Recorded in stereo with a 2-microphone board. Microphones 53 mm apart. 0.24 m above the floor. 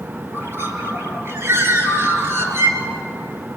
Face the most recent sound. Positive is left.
turn(degrees=-50)  # may be behind; listen again after turning